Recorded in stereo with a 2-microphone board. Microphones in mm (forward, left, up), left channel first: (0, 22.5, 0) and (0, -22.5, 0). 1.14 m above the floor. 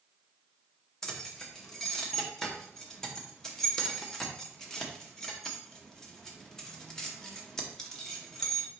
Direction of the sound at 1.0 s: 10° left (ahead or behind).